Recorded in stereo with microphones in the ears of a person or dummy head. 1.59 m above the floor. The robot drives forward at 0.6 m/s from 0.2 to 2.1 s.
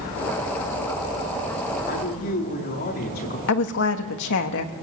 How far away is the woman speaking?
About 2 m.